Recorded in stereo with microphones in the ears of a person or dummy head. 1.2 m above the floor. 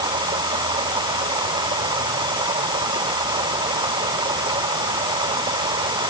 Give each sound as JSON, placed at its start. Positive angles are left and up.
{"t": 0.0, "sound": "running water", "side_deg": -20}